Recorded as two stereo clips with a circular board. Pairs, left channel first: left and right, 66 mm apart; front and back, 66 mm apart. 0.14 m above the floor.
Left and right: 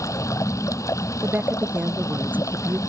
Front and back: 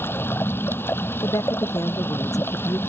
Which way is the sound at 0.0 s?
55° left.